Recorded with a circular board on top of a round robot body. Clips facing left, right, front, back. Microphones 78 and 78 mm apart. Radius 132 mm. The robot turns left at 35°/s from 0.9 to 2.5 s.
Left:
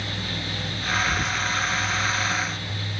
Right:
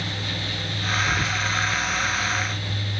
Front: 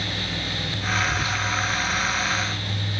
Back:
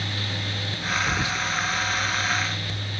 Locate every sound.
1.1 s whispering: 175° right, 0.9 m; by 1.4 s 170° left, 0.9 m